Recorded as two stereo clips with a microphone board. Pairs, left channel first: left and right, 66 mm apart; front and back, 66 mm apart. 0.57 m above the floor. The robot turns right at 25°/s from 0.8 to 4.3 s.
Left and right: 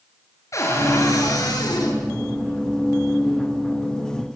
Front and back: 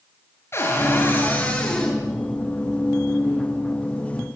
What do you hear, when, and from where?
0.5 s a cupboard door: 50° left, 7.5 m; by 2.0 s 80° left, 7.5 m